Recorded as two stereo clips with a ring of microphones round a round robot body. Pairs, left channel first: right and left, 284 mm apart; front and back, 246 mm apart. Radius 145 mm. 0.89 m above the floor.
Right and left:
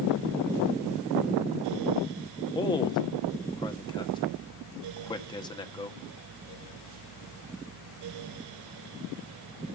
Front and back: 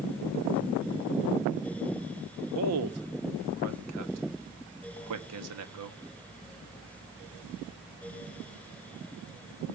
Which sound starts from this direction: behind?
A man speaking, at 2.5 s.